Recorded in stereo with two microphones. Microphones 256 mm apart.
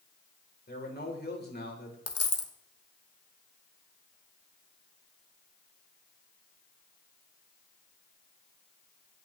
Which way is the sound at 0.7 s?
40° left (ahead or behind).